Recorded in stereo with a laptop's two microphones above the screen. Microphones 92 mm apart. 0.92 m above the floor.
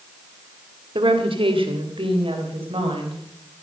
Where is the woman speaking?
75° right (ahead or behind), 2 m; by 3.2 s 80° right, 5 m.